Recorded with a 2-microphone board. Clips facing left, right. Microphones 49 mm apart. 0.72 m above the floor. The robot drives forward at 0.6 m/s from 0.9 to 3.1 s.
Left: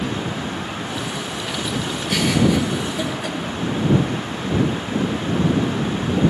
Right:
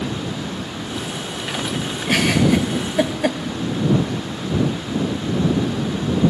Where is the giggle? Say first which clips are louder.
Right 2 dB; 50° right (ahead or behind), 0.7 m; by 3.4 s 55° right (ahead or behind), 0.7 m.